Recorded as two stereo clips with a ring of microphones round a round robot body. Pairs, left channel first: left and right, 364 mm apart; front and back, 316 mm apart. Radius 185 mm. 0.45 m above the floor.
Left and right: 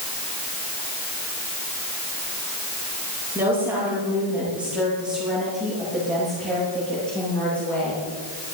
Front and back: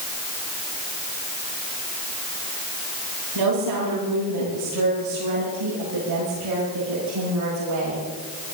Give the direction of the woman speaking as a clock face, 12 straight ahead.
6 o'clock.